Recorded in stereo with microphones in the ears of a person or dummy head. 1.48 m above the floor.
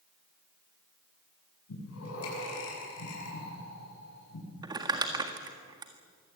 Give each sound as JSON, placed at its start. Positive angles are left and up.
{"t": 1.7, "sound": "breathing", "side_deg": 85, "distance_m": 8.5}
{"t": 4.6, "sound": "crumpling", "side_deg": -20, "distance_m": 1.7}